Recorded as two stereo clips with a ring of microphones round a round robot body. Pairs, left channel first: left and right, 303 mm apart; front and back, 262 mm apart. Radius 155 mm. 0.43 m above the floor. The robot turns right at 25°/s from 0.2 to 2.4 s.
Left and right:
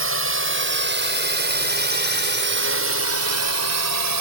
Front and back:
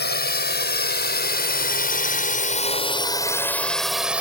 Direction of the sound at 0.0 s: 50° right.